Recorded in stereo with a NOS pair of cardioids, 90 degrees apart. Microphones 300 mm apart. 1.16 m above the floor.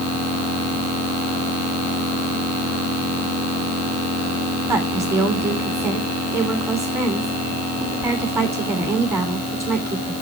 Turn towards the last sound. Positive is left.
turn(degrees=-10)